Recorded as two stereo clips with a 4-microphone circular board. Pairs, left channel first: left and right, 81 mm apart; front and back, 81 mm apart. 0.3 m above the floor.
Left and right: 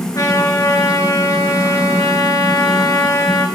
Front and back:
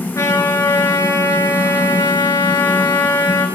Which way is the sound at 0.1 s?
50° left.